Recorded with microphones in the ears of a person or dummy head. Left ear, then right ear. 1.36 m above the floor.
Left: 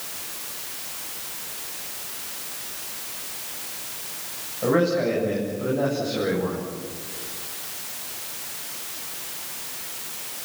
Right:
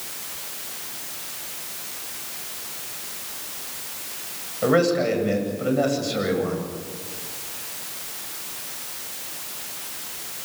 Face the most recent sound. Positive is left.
turn(degrees=-75)  # may be behind; listen again after turning